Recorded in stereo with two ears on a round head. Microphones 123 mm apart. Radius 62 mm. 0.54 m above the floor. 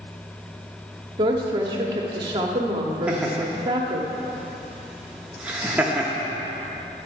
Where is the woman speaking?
30° right (ahead or behind), 0.9 m.